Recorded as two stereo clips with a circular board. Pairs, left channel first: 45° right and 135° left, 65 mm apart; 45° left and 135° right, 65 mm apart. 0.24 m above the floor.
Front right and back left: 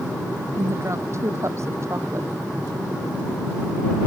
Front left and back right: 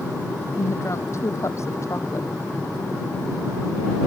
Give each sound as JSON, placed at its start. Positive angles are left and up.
{"t": 0.6, "sound": "a woman speaking", "azimuth_deg": 90}